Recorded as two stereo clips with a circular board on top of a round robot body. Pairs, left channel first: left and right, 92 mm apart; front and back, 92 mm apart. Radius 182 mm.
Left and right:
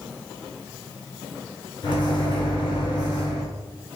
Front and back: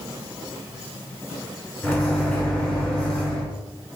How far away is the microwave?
About 1.8 m.